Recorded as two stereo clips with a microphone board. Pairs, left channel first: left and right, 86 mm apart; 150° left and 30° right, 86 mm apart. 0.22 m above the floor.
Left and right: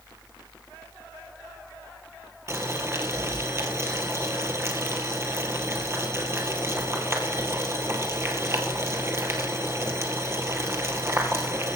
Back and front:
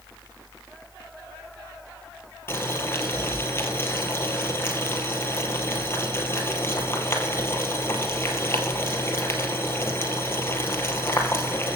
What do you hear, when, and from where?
2.5 s boiling: 150° right, 2 m